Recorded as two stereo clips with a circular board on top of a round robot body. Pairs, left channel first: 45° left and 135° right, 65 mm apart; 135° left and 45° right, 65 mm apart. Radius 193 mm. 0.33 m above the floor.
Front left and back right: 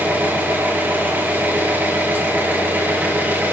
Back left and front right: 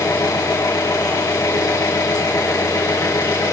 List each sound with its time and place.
0.0 s an engine running: 165° left, 3 m